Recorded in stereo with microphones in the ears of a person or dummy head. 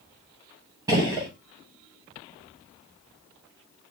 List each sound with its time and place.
0.9 s a gunshot: 20° right (ahead or behind), 0.8 m